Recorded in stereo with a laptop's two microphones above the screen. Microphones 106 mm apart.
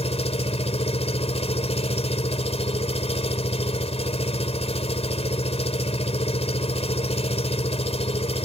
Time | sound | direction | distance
0.0 | an engine running | 80° left | ?